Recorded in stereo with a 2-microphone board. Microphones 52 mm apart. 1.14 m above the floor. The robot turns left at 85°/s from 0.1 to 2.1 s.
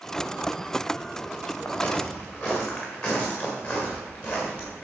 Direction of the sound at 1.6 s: 65° left (ahead or behind).